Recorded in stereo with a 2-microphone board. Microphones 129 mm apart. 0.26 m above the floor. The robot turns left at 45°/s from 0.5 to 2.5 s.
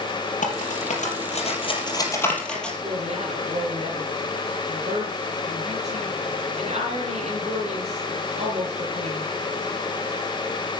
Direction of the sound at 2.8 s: 55° right (ahead or behind).